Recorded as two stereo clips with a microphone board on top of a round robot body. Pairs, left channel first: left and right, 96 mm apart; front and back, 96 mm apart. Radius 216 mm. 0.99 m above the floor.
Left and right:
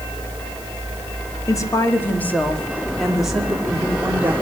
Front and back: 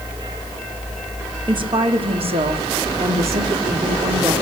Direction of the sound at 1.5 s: 145° left.